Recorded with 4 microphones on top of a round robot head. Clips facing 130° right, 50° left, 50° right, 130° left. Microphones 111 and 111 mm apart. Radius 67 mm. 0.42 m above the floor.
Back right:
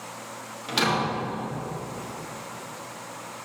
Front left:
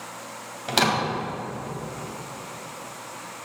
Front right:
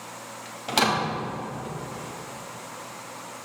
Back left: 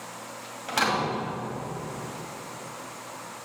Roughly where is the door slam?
Ahead.